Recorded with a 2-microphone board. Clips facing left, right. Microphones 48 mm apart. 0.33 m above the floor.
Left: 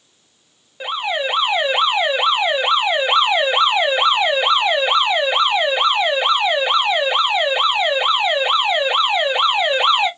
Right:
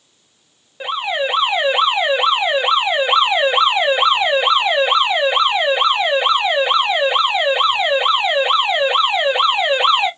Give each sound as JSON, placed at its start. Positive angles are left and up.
{"t": 0.8, "sound": "an alarm", "side_deg": -5, "distance_m": 1.5}